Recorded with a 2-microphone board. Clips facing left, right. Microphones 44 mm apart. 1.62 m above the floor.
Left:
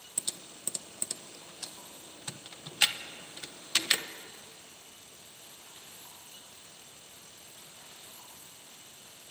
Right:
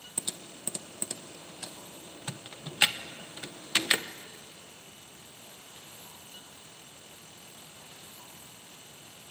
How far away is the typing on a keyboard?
About 1.2 m.